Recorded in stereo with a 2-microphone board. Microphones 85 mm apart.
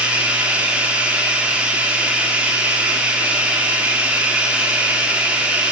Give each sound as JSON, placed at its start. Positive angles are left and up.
{"t": 0.0, "sound": "running water", "side_deg": -15, "distance_m": 1.6}